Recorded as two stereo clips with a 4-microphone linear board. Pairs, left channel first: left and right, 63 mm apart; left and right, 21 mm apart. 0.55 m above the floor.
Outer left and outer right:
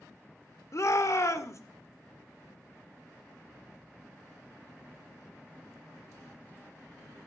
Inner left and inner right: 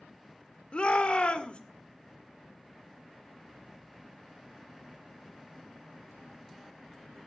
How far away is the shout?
About 1.6 m.